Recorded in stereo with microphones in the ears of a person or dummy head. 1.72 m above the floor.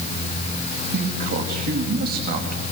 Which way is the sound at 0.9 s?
50° right (ahead or behind).